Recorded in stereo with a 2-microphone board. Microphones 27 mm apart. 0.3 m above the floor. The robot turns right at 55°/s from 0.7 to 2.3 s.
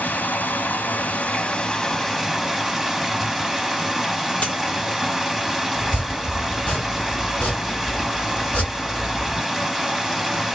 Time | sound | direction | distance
0.0 | running water | 95° left | 0.8 m
4.4 | a dropped coin | 55° left (ahead or behind) | 1.2 m
5.8 | chopping | 55° left (ahead or behind) | 2 m